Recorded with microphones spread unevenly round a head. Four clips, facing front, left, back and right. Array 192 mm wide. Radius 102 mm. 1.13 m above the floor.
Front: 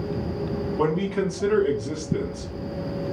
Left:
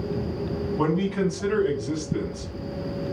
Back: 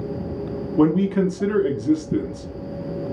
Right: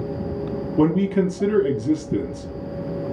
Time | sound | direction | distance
0.8 | a man speaking | 130° right | 1.0 m